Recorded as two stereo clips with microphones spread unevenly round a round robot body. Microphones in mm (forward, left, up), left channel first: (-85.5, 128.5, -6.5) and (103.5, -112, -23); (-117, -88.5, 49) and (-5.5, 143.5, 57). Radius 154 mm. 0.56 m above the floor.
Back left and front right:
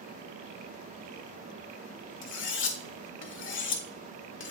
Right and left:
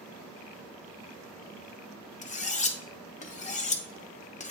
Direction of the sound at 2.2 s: 175° right.